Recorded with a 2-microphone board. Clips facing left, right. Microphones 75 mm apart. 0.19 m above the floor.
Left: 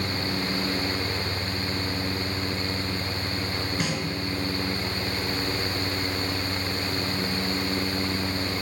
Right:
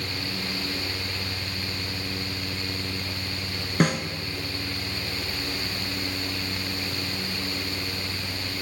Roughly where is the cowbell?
No cowbell in this recording.